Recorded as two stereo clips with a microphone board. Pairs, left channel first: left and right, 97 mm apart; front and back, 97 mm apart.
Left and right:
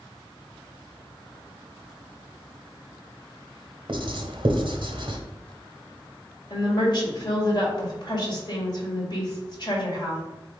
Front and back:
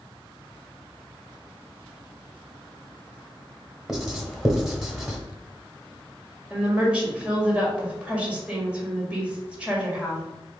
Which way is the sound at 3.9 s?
95° right.